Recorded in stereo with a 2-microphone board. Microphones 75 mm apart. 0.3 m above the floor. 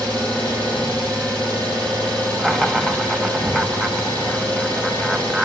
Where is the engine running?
15° left (ahead or behind), 7 m.